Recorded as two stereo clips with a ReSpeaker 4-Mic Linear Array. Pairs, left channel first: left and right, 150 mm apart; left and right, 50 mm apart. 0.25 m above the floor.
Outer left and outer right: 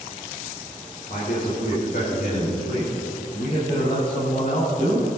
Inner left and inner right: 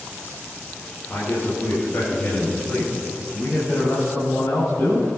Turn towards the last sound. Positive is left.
turn(degrees=70)  # may be behind; listen again after turning